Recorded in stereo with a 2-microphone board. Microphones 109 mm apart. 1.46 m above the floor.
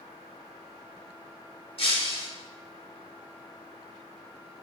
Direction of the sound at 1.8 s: 65° left (ahead or behind).